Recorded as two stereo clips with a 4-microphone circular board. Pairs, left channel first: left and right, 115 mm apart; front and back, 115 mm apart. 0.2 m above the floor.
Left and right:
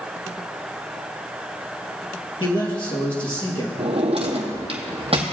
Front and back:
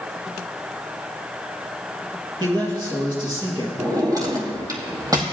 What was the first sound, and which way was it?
A man speaking, 135° left.